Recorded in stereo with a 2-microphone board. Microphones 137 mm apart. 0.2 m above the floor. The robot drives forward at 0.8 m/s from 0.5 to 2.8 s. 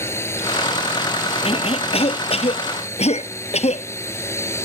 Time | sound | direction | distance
0.0 | a drone | 20° left (ahead or behind) | ?
1.4 | a cough | 45° left (ahead or behind) | ?